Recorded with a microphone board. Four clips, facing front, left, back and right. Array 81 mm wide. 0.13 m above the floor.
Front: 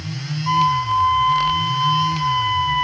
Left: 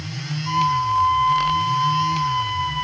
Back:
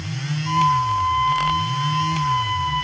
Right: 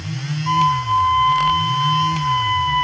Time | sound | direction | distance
0.5 | a flute | 45° right | 0.9 m